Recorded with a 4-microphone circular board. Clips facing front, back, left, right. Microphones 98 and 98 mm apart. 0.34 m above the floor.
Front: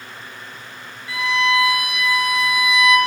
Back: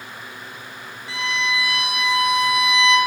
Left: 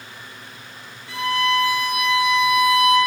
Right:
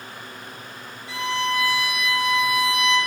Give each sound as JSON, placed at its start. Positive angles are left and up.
{"t": 1.1, "sound": "a violin", "azimuth_deg": 120, "distance_m": 3.5}